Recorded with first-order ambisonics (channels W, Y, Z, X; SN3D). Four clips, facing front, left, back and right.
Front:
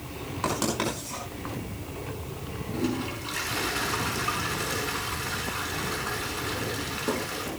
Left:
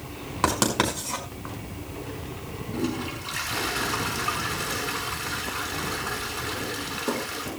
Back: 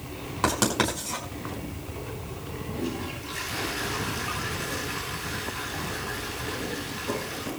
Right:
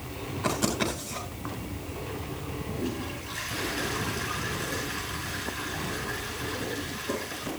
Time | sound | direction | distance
0.4 | writing | 110° left | 5 m
2.7 | a toilet flushing | 60° left | 5 m